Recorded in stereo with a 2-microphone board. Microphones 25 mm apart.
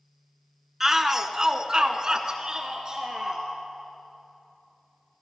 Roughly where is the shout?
Centre.